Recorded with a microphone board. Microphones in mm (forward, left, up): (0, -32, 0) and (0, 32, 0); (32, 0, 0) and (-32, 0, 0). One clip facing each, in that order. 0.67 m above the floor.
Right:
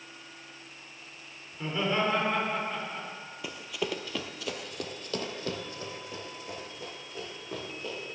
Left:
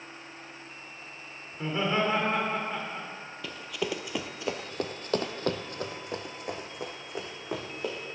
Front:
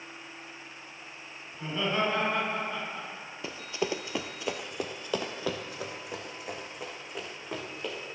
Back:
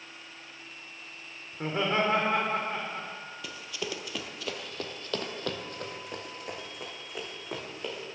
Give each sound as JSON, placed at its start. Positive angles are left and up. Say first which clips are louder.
{"t": 1.5, "sound": "laughter", "louder": "left 1 dB, back 2 dB", "azimuth_deg": 160, "distance_m": 2.0}
{"t": 3.4, "sound": "running footsteps", "louder": "left 1 dB, front 6 dB", "azimuth_deg": -25, "distance_m": 0.7}